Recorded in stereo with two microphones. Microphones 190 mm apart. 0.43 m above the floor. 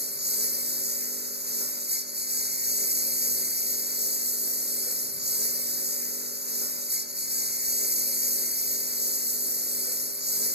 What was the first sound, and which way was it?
A lawn mower, 60° right (ahead or behind).